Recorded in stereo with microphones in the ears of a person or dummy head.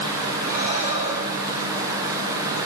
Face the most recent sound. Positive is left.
turn(degrees=-45)  # may be behind; listen again after turning